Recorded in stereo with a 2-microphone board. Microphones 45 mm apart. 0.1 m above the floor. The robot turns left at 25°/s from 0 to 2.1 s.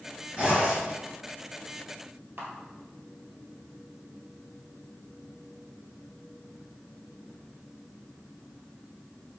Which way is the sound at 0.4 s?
20° right (ahead or behind).